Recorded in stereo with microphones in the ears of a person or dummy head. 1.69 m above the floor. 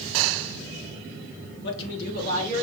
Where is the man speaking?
70° left (ahead or behind), 1.9 m; by 2.6 s 40° left (ahead or behind), 1.7 m.